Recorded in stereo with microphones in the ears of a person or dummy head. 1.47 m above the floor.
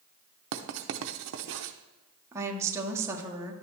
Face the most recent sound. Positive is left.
turn(degrees=-15)  # may be behind; listen again after turning